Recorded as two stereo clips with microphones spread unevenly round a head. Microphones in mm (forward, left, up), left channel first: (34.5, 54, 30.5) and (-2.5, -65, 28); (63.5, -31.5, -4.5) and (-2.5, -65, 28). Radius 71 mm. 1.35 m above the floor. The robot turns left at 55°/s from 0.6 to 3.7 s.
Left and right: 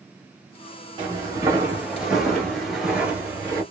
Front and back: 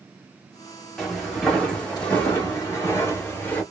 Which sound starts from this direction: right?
Footsteps, at 1.0 s.